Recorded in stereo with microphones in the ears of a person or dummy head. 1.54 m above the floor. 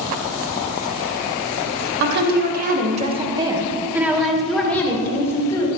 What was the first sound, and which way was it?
A woman speaking, 60° right (ahead or behind).